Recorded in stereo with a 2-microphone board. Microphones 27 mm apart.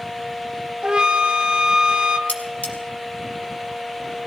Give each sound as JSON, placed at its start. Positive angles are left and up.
{"t": 0.8, "sound": "a flute", "side_deg": -30, "distance_m": 1.0}
{"t": 2.3, "sound": "cutlery clinking", "side_deg": 65, "distance_m": 2.5}